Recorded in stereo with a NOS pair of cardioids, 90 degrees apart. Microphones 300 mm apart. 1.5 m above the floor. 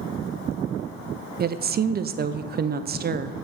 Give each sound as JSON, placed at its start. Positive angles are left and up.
{"t": 1.4, "sound": "a woman speaking", "azimuth_deg": -30, "distance_m": 0.5}